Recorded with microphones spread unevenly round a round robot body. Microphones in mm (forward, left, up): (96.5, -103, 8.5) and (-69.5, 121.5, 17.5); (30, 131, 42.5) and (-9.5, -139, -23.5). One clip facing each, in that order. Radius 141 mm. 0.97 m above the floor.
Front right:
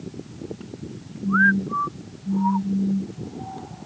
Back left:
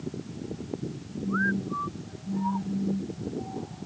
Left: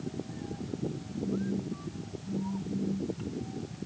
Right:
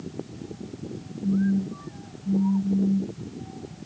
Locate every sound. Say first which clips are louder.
1.2 s a phone buzzing: front right 6 dB, right 9 dB; 110° right